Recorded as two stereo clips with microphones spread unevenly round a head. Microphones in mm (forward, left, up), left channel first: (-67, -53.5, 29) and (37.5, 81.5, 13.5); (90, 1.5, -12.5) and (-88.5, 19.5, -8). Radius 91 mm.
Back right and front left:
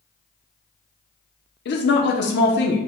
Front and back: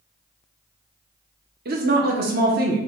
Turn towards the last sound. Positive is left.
turn(degrees=-150)